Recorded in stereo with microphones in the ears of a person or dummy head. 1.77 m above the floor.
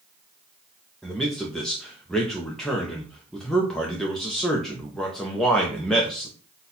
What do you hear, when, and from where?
1.0 s a man speaking: centre (ahead or behind), 0.6 m